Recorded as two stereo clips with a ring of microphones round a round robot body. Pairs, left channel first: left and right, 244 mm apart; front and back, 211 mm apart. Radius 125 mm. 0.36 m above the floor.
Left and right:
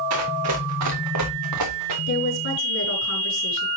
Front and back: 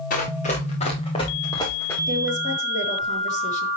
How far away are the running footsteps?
About 4 m.